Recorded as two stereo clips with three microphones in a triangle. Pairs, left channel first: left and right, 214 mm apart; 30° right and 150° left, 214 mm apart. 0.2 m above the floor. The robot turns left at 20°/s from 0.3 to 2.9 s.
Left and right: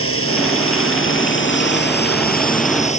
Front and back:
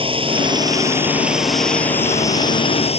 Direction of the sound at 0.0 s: 85° left.